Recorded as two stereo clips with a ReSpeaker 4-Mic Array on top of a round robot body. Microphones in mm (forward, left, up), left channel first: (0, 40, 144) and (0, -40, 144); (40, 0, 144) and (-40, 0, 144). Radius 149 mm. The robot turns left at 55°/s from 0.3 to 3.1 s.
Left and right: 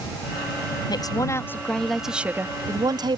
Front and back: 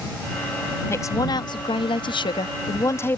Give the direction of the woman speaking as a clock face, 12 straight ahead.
10 o'clock.